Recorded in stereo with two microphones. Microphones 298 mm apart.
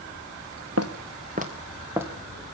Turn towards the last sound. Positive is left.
turn(degrees=-5)  # may be behind; listen again after turning